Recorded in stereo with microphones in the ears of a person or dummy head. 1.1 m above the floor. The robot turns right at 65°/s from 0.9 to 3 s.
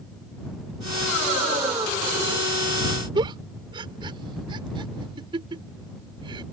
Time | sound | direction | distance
3.1 | a giggle | 30° right (ahead or behind) | ?